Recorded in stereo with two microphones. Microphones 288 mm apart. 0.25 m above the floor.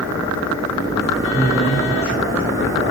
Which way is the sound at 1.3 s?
10° right (ahead or behind).